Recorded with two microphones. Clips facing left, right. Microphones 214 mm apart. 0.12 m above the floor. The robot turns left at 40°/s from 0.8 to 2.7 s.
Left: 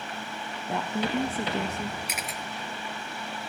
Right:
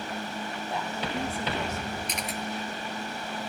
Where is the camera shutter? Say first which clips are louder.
Right 3 dB; 10° left (ahead or behind), 1.1 m; by 2.4 s 5° right (ahead or behind), 1.1 m.